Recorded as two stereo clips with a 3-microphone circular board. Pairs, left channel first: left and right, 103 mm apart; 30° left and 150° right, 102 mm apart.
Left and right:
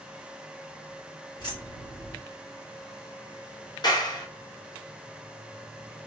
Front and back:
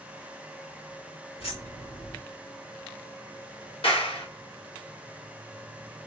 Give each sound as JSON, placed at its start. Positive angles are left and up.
{"t": 1.4, "sound": "keys jangling", "azimuth_deg": 40, "distance_m": 1.8}
{"t": 3.8, "sound": "a clap", "azimuth_deg": 45, "distance_m": 1.1}